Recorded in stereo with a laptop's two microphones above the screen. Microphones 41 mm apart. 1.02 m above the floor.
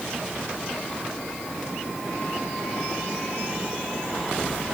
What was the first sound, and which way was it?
Only background noise.